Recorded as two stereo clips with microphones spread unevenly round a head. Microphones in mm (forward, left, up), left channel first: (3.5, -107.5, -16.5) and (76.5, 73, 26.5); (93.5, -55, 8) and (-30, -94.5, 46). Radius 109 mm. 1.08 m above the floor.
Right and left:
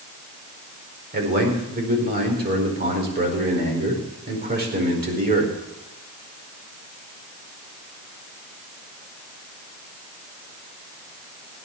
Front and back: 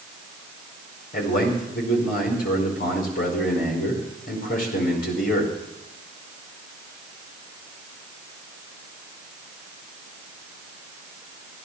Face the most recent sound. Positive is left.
turn(degrees=20)